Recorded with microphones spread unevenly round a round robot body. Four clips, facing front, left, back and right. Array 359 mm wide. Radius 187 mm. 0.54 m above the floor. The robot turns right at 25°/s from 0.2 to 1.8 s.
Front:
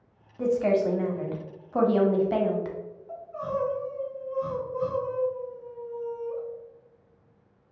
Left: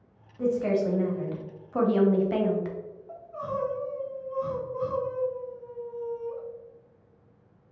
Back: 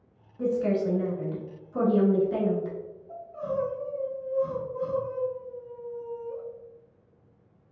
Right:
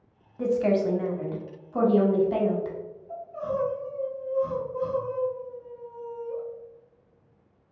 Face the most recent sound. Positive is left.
turn(degrees=20)